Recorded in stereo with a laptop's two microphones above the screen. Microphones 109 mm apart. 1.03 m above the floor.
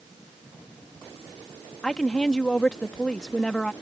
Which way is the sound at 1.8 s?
5° left (ahead or behind).